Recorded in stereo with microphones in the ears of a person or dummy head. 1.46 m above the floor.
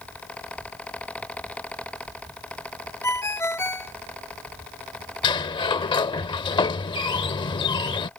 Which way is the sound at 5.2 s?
25° left (ahead or behind).